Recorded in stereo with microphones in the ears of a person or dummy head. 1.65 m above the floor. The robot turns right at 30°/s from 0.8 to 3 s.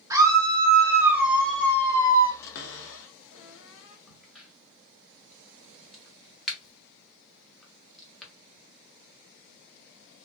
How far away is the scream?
About 1.3 m.